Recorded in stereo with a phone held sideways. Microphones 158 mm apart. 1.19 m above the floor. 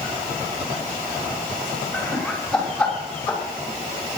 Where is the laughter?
5° left (ahead or behind), 6 m; by 3.4 s 10° left (ahead or behind), 5 m.